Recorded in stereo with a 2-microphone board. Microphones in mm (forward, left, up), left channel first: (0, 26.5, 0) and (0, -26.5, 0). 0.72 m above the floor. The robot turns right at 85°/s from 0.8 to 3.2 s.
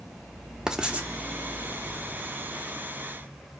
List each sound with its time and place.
0.7 s writing: 10° right (ahead or behind), 0.5 m; by 1.1 s 35° right (ahead or behind), 0.5 m